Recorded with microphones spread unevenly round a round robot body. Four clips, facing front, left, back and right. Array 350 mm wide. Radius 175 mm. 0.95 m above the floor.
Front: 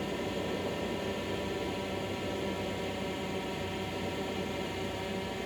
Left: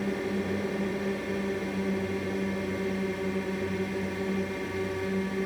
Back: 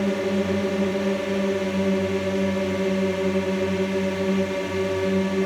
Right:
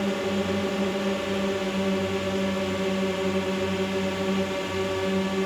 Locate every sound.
0.0 s a drone: 165° right